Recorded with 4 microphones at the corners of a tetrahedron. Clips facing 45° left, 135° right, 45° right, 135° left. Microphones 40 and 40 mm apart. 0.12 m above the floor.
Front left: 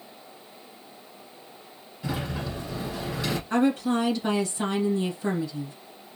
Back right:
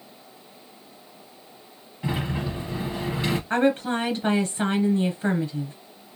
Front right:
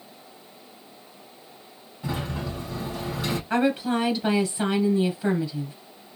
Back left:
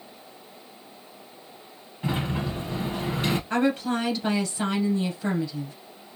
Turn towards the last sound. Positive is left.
turn(degrees=-125)